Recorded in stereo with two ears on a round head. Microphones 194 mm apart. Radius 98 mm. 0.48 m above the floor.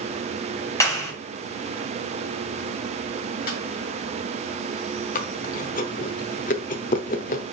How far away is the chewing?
About 0.8 m.